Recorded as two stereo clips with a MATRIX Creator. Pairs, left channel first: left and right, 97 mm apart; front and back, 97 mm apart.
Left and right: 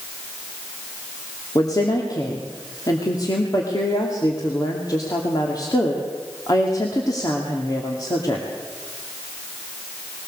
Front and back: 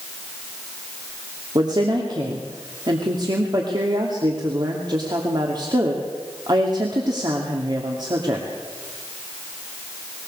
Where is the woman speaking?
140° left, 2.5 m.